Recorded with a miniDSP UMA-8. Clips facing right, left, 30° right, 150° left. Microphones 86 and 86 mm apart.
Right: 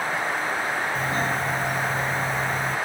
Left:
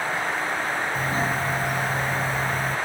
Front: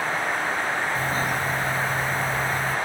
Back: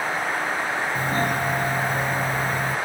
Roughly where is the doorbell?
Behind.